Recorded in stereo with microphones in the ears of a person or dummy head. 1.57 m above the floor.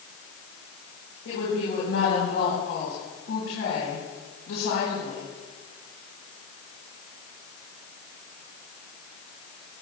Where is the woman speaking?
85° left, 4.5 m.